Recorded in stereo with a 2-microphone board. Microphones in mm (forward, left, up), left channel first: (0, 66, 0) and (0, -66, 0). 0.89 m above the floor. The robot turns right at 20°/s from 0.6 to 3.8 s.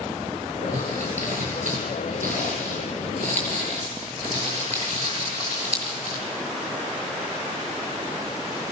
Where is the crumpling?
65° right (ahead or behind), 7 m; by 6.2 s 55° right (ahead or behind), 7 m.